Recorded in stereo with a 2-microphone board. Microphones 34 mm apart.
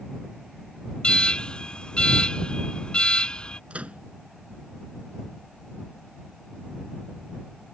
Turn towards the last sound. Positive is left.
turn(degrees=-45)  # may be behind; listen again after turning